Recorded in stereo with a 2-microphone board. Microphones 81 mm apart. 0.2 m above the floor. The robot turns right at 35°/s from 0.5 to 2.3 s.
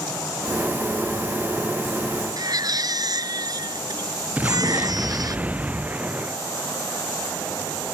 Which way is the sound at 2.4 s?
55° right (ahead or behind).